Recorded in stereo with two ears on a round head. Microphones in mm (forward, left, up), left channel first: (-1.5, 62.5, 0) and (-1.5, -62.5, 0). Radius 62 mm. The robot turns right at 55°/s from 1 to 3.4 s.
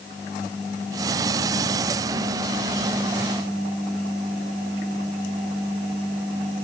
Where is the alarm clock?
I don't hear an alarm clock.